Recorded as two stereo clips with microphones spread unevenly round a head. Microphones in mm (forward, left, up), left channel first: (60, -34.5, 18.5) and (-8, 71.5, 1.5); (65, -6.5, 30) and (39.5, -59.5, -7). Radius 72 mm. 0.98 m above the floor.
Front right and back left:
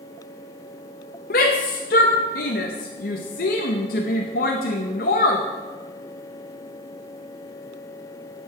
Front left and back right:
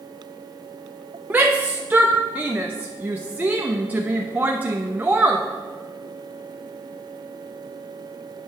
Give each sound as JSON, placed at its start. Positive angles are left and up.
{"t": 1.3, "sound": "a shout", "azimuth_deg": -70, "distance_m": 0.9}